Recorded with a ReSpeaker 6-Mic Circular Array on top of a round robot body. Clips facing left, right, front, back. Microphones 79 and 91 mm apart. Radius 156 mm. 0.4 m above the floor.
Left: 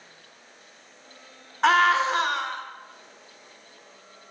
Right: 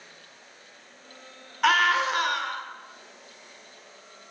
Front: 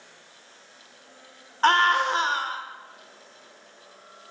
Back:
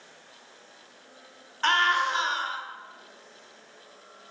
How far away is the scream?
About 1.3 m.